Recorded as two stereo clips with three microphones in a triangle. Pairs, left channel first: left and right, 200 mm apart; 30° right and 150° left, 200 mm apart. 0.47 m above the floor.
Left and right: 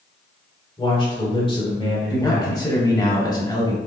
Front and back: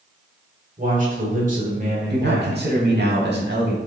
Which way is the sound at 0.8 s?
140° left.